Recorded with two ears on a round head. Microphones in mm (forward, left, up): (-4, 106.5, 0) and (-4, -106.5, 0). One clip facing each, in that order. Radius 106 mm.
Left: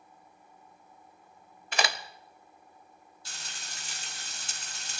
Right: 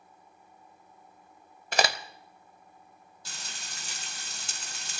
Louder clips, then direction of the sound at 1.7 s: Right 4 dB; 35° right (ahead or behind).